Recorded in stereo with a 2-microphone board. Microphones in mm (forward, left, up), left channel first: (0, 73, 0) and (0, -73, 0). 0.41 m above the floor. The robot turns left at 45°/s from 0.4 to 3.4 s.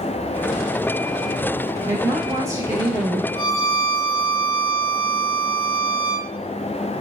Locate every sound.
1.8 s a woman speaking: 20° right (ahead or behind), 0.8 m; by 3.2 s 15° right (ahead or behind), 0.8 m
3.4 s a violin: 35° left (ahead or behind), 1.6 m